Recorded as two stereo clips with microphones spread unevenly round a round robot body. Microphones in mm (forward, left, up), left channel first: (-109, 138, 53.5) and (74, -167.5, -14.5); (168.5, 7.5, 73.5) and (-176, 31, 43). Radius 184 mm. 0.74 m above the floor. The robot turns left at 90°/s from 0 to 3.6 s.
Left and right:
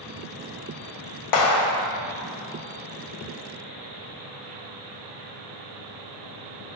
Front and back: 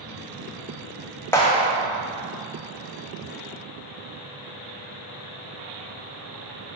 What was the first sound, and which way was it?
A clap, 80° left.